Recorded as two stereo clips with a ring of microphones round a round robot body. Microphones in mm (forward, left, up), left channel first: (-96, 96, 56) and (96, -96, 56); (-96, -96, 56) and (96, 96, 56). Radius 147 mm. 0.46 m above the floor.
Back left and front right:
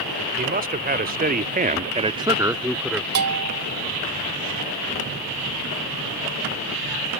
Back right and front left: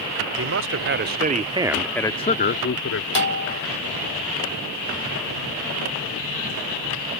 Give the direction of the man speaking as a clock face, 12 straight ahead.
12 o'clock.